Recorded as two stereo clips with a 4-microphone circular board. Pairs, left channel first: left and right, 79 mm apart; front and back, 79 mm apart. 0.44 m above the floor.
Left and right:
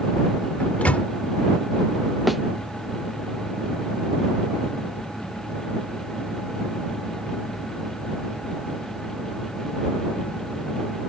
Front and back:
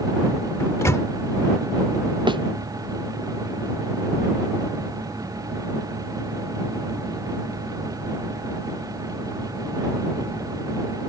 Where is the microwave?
25° left.